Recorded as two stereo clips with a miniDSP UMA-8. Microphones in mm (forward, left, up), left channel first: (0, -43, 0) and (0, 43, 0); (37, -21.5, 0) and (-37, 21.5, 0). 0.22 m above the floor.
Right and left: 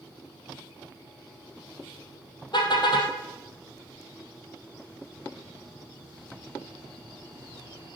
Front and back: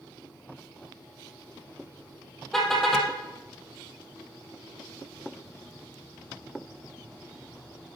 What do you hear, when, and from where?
2.5 s a car horn: 115° right, 3 m